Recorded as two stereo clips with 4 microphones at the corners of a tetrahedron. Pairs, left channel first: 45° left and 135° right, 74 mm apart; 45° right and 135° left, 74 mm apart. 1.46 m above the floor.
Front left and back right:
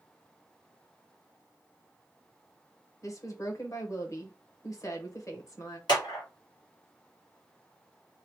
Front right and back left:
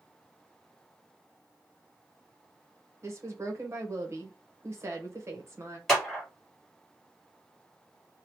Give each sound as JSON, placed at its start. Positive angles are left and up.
{"t": 3.0, "sound": "a woman speaking", "azimuth_deg": 90, "distance_m": 0.9}
{"t": 5.9, "sound": "a clap", "azimuth_deg": 40, "distance_m": 1.6}